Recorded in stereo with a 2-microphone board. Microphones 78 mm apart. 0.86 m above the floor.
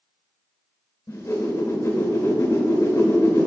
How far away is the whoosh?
About 1.5 m.